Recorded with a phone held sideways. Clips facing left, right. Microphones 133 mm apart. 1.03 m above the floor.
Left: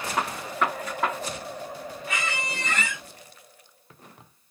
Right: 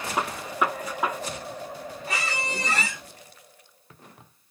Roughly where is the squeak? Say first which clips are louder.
Right 1 dB; right.